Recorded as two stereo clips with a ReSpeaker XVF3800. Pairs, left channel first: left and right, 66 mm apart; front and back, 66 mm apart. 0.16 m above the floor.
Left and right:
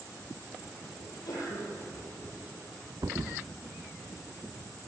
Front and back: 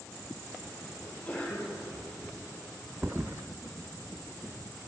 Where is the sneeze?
70° left, 6.5 m.